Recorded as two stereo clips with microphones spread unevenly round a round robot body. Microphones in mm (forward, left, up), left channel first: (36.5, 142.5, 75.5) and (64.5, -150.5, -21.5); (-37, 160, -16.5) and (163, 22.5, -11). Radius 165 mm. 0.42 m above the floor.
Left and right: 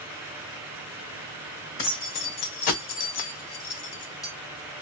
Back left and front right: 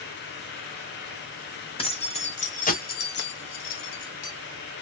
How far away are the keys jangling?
About 2.0 m.